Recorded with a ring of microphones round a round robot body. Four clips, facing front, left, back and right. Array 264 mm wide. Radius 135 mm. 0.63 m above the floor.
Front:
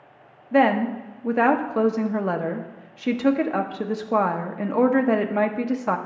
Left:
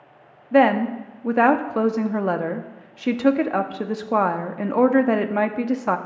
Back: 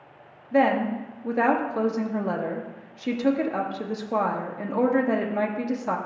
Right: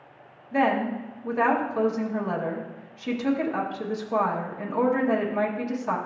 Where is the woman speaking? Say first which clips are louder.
Left 7 dB, front 2 dB; 70° left, 0.7 m.